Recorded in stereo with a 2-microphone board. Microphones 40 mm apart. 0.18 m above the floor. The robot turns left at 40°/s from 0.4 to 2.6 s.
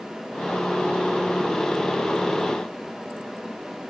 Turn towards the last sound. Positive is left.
No sound to turn to.